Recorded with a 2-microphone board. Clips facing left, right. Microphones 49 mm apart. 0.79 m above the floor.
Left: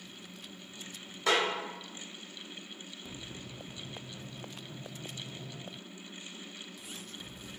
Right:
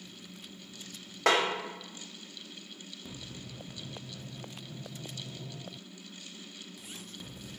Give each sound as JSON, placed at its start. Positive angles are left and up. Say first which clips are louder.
{"t": 1.3, "sound": "a snare drum", "louder": "right 3 dB", "side_deg": -70, "distance_m": 0.8}